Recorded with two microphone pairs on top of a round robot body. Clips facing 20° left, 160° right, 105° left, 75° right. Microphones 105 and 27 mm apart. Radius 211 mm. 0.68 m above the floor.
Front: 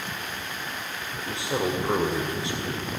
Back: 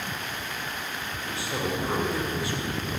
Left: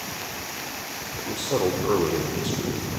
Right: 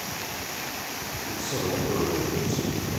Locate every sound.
1.2 s a man speaking: 90° left, 2.5 m